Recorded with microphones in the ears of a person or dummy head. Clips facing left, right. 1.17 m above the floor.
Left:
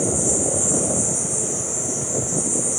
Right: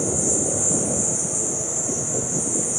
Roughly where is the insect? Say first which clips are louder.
Left 2 dB; left.